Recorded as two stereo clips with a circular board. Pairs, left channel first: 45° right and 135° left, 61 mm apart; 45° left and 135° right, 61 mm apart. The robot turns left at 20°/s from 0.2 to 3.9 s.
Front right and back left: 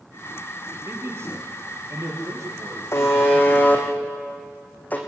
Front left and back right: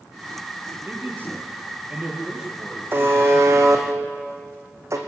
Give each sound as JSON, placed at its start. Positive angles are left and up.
{"t": 0.8, "sound": "a man speaking", "azimuth_deg": 180, "distance_m": 5.0}
{"t": 2.9, "sound": "a buzzer", "azimuth_deg": -85, "distance_m": 2.5}